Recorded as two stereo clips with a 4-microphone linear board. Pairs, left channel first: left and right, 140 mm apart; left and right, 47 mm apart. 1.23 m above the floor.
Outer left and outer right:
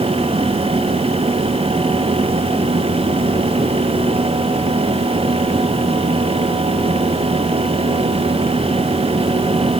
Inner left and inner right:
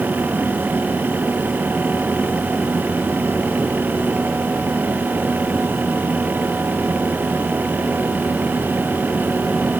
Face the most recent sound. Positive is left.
No sound to turn to.